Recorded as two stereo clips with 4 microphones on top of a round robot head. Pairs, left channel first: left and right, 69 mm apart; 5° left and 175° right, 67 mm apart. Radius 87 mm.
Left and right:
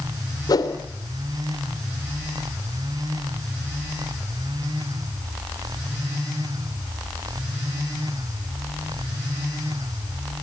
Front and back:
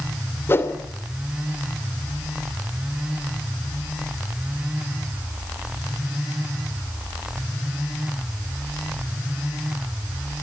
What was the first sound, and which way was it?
A whoosh, 60° left.